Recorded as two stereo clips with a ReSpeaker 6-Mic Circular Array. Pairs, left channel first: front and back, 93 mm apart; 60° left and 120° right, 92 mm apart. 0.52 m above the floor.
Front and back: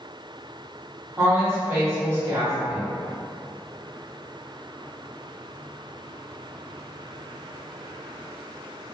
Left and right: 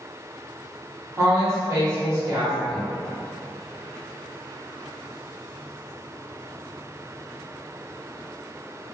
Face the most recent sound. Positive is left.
turn(degrees=-145)